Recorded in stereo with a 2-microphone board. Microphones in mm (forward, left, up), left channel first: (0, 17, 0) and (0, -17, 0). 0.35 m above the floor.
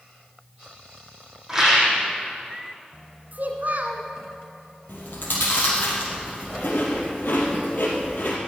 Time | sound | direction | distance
1.5 | a rattle | 10° right (ahead or behind) | 5 m
3.3 | a child speaking | 65° right (ahead or behind) | 1.9 m
4.9 | chewing | 70° left (ahead or behind) | 3.5 m